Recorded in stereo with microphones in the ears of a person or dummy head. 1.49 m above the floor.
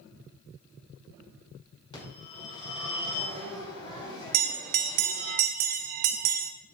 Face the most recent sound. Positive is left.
turn(degrees=-55)  # may be behind; listen again after turning